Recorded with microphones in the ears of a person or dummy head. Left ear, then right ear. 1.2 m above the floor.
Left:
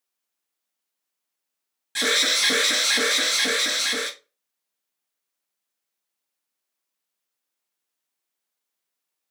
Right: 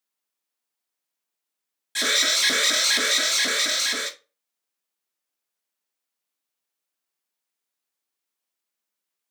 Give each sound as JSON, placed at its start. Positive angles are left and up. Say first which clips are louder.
{"t": 1.9, "sound": "an alarm", "louder": "even", "side_deg": -10, "distance_m": 0.6}